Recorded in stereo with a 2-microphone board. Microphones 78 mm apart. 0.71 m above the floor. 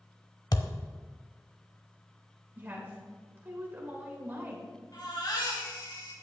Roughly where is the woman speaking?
Right.